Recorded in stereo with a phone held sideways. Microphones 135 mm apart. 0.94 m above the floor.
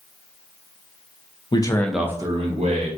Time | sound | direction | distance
1.5 | a man speaking | 40° left (ahead or behind) | 0.6 m